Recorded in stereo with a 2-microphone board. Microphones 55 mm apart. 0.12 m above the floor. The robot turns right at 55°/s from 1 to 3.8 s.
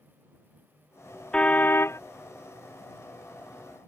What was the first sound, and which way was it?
A car horn, 20° left.